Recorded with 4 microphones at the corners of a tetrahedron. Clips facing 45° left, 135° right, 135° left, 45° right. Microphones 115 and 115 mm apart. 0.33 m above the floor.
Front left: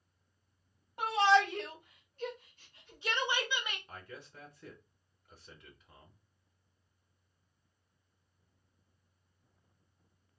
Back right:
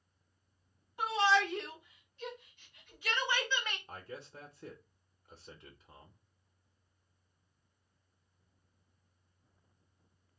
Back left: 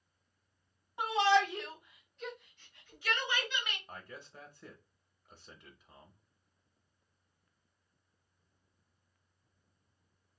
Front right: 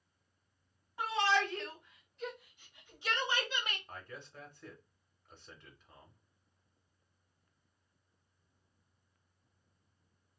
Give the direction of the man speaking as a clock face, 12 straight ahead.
5 o'clock.